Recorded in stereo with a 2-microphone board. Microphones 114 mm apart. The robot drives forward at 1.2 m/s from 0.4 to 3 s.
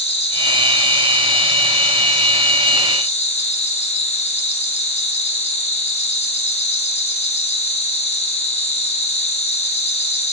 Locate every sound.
0.0 s an insect: 65° left (ahead or behind), 4.5 m; by 10.3 s 70° left (ahead or behind), 4 m